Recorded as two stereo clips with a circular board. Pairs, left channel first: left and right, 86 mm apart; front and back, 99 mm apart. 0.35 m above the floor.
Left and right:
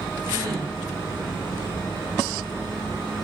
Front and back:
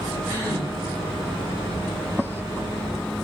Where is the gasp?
60° right, 1.8 m.